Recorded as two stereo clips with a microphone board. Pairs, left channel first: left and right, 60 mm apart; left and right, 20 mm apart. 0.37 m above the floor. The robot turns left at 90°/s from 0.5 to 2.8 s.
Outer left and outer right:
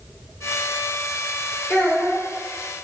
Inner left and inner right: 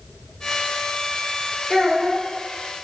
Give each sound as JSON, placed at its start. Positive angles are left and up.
{"t": 1.7, "sound": "a child speaking", "side_deg": 20, "distance_m": 0.7}